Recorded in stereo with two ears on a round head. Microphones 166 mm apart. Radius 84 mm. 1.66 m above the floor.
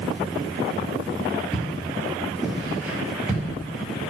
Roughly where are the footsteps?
Centre.